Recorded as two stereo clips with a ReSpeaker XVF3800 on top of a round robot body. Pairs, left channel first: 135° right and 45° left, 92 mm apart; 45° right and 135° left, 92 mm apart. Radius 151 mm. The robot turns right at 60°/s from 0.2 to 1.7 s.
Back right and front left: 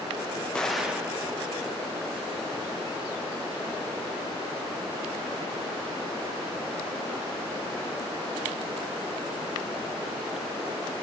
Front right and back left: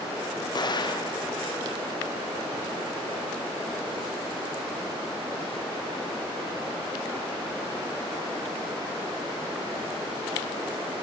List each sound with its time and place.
0.6 s an explosion: 55° right, 1.2 m; by 1.2 s 20° right, 1.2 m